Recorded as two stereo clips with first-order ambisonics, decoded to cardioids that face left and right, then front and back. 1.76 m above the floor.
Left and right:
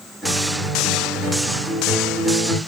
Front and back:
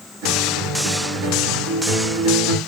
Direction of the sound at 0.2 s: 165° right.